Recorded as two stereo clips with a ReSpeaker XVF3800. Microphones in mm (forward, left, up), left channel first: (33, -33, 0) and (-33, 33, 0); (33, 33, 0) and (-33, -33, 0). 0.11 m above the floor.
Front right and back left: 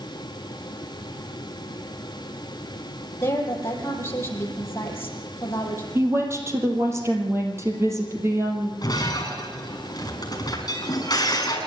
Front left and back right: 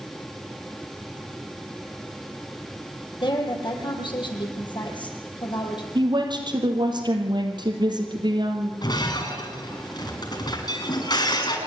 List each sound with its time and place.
3.2 s a woman speaking: 15° left, 4 m
6.0 s a woman speaking: 165° right, 3 m
8.8 s breaking glass: 5° left, 6.5 m